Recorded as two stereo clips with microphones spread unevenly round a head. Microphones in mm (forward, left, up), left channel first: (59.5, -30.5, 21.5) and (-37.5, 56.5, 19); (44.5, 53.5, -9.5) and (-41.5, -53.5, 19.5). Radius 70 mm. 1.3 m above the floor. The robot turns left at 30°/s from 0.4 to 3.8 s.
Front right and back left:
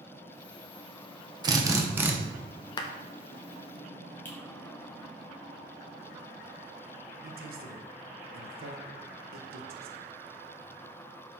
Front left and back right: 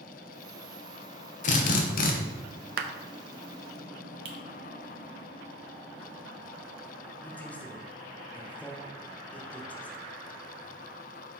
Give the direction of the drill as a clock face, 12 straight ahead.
9 o'clock.